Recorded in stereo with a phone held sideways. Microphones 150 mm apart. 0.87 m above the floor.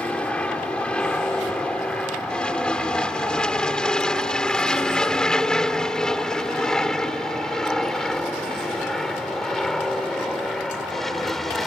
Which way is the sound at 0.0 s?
10° left (ahead or behind).